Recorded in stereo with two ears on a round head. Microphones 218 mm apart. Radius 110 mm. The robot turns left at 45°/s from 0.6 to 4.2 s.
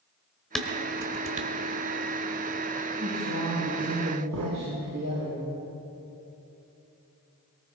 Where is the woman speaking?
25° right, 7 m; by 5.3 s 80° right, 7 m.